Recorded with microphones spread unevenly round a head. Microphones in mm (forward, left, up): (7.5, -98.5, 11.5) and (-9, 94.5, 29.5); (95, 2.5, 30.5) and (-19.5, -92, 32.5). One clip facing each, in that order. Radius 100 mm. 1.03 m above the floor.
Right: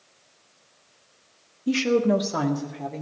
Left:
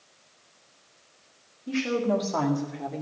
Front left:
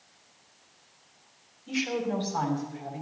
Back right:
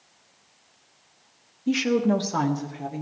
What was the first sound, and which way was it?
A woman speaking, 130° right.